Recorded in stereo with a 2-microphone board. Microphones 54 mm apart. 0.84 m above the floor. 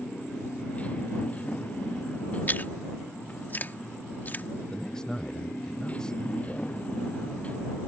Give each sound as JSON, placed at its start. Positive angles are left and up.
{"t": 0.0, "sound": "a motorcycle", "side_deg": 25}
{"t": 2.5, "sound": "chewing", "side_deg": 35}
{"t": 4.7, "sound": "a man speaking", "side_deg": 15}